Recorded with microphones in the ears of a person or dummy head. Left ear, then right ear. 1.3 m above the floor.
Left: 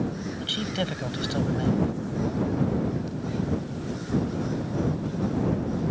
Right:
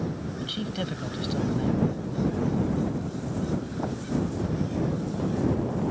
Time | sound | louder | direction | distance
0.4 | a man speaking | left 5 dB | 20° left (ahead or behind) | ?